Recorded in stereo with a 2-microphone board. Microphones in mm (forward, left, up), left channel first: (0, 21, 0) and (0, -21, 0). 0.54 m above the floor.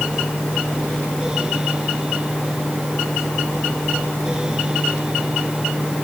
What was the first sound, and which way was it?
Only background noise.